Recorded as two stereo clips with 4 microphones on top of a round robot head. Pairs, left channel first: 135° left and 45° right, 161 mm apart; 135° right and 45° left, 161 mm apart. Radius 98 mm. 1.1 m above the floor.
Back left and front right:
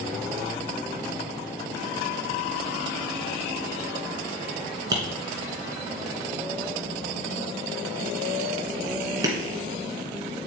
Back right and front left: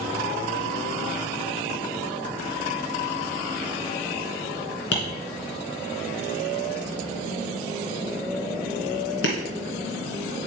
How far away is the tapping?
About 2.5 m.